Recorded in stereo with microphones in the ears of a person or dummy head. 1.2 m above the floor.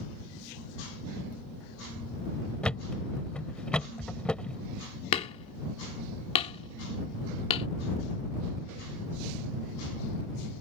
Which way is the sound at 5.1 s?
25° left (ahead or behind).